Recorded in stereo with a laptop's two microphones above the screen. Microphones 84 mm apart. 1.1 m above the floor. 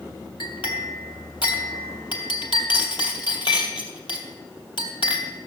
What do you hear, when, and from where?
0.4 s a clink: 70° left (ahead or behind), 2.5 m